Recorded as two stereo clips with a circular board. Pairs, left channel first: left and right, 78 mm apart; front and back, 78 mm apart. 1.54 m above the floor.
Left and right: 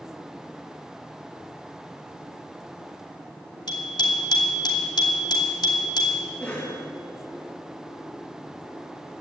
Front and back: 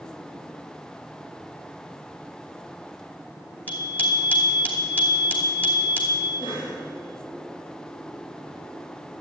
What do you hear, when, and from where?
3.7 s a bicycle bell: 70° left, 2.5 m
6.4 s a cough: 15° left, 3 m